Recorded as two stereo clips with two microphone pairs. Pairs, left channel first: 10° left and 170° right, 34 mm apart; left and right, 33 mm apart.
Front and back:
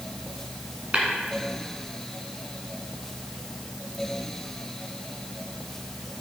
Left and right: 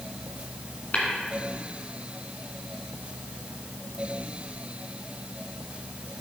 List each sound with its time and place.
0.9 s tapping: 135° left, 1.9 m